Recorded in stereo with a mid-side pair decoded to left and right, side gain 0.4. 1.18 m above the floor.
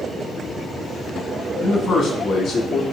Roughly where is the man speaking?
Ahead left.